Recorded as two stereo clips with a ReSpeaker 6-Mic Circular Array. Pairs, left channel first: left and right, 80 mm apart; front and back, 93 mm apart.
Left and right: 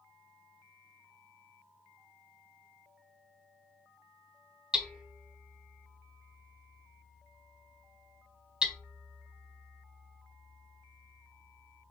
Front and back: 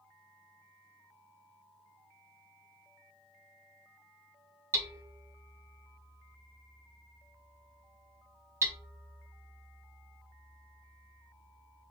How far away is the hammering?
About 0.8 m.